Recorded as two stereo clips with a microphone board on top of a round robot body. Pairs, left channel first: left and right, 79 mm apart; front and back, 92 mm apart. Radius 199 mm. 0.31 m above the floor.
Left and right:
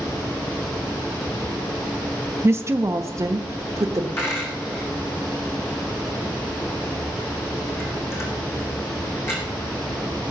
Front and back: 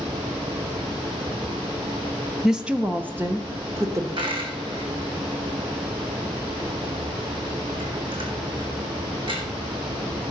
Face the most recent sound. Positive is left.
turn(degrees=150)